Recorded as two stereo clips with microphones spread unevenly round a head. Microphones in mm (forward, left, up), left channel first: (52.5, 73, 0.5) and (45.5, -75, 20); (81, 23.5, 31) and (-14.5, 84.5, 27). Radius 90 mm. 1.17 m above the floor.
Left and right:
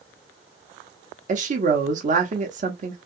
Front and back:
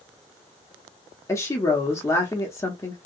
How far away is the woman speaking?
About 0.7 m.